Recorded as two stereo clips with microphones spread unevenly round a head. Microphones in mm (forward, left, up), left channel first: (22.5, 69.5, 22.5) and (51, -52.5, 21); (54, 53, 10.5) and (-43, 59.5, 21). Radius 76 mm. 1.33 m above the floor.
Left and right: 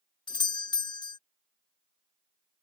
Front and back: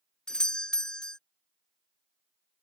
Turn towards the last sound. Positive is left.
turn(degrees=70)